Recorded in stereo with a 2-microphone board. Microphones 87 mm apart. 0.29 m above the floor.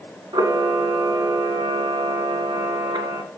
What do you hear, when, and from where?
0.3 s a camera shutter: 65° right (ahead or behind), 1.6 m